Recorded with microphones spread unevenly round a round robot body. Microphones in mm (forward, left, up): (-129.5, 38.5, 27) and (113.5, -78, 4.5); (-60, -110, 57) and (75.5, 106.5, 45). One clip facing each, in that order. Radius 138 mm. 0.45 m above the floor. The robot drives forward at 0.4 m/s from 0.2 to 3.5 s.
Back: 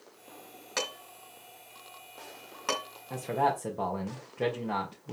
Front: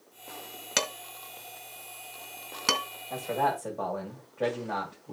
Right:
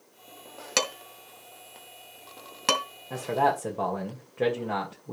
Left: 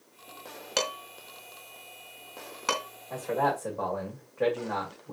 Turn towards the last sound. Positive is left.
turn(degrees=-160)